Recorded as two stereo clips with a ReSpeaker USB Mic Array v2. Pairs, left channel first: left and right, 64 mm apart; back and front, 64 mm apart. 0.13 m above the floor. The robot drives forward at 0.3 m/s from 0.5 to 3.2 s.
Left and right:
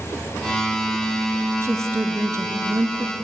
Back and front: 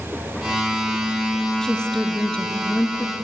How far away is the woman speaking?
About 1.7 m.